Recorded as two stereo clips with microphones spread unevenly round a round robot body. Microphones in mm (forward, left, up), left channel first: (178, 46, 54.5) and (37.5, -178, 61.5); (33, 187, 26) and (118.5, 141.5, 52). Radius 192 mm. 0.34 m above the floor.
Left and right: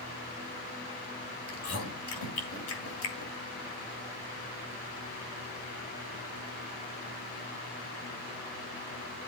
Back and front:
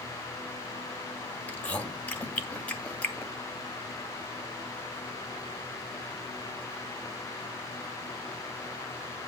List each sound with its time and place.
1.5 s chewing: 85° left, 2.5 m